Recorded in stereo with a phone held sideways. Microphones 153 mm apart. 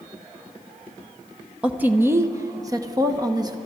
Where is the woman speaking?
10° right (ahead or behind), 0.8 m; by 3.6 s 25° right (ahead or behind), 1.2 m.